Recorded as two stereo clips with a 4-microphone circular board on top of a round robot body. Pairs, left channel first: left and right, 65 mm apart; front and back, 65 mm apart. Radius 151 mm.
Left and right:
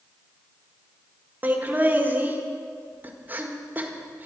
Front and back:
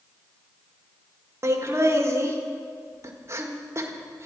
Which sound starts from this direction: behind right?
Laughter, at 1.4 s.